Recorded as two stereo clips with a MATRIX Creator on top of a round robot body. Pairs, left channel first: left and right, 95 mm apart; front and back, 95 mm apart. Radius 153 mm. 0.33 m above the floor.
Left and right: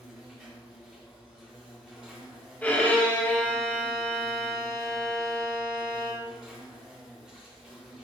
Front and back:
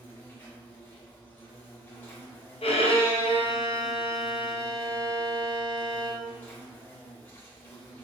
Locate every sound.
0.0 s an insect: 15° right, 2 m
2.6 s a violin: 15° left, 0.8 m